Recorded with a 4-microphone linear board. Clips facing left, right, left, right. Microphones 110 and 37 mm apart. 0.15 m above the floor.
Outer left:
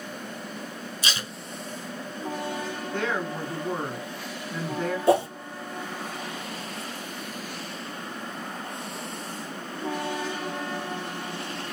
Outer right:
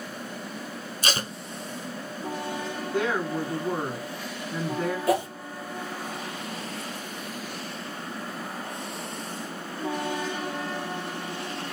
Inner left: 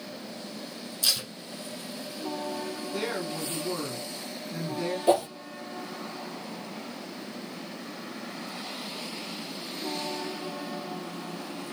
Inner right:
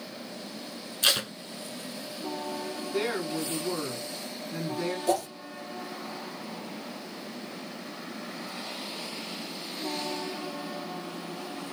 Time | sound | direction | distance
1.0 | tape being pulled | 50° right (ahead or behind) | 0.5 m
2.9 | a woman speaking | 10° right (ahead or behind) | 1.5 m
5.1 | a whoosh | 30° left (ahead or behind) | 1.2 m